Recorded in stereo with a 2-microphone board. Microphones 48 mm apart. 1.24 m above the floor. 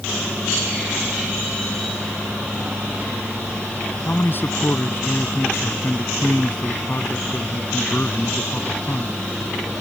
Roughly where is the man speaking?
Left.